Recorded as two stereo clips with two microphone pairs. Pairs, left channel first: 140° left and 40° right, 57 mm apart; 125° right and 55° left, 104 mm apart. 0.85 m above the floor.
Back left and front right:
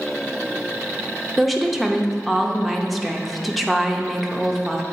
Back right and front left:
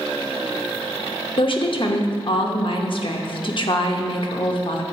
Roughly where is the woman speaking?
Behind right.